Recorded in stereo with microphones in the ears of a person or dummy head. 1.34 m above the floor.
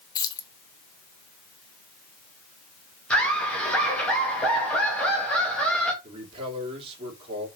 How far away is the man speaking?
About 3.5 m.